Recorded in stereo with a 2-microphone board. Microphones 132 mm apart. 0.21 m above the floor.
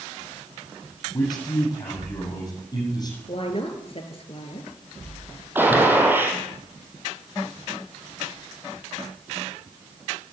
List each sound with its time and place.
1.1 s a man speaking: 30° left (ahead or behind), 7.5 m
3.3 s a woman speaking: 45° left (ahead or behind), 3 m
5.5 s a gunshot: 15° right (ahead or behind), 3.5 m